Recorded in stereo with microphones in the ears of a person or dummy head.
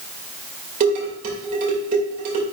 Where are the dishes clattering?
45° right (ahead or behind), 2.5 m.